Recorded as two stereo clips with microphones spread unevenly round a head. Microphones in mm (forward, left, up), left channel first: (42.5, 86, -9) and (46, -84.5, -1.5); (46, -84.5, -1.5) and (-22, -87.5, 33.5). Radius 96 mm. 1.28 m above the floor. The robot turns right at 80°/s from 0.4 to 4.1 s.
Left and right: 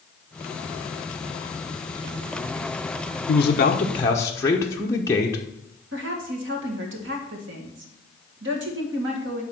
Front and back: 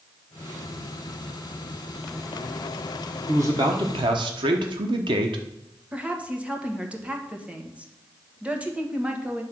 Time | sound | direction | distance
3.3 | a man speaking | 100° left | 0.9 m
5.9 | a woman speaking | 100° right | 1.7 m